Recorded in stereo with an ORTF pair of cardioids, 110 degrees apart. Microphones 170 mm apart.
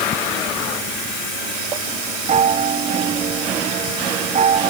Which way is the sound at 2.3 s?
45° right.